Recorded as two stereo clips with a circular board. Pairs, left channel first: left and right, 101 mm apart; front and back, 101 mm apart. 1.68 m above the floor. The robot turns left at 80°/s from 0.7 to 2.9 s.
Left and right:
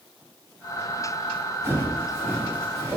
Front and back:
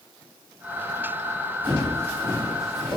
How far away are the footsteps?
About 1.9 m.